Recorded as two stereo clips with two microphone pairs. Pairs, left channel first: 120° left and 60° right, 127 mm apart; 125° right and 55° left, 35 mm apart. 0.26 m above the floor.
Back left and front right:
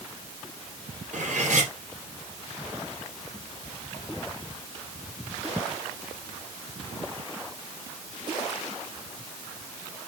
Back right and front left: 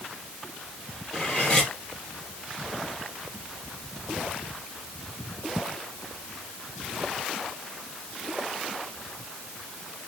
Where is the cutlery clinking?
65° right, 4 m.